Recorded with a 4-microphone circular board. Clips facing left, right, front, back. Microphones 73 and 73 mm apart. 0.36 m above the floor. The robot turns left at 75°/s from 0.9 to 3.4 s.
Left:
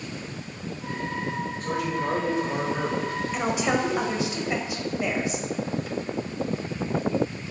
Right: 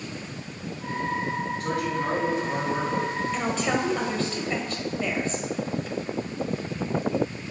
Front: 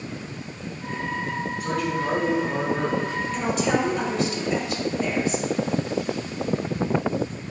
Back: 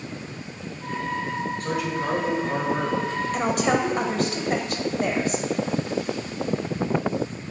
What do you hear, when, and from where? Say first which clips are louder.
1.6 s a man speaking: left 1 dB, front 3 dB; 80° right, 3 m; by 3.2 s 160° left, 3 m
3.3 s a woman speaking: left 3 dB, back 1 dB; 170° left, 1.3 m; by 5.5 s 165° left, 1.3 m